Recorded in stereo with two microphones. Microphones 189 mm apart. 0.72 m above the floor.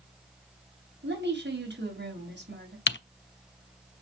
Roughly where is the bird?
No bird in this recording.